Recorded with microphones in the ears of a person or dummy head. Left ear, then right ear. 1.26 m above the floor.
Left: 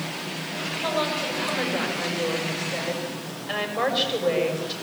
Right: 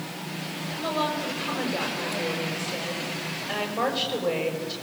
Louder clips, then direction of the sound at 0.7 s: Left 1 dB; 5° left (ahead or behind).